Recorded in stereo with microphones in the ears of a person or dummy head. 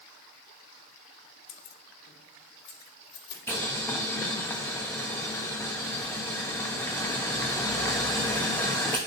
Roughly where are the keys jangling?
Left.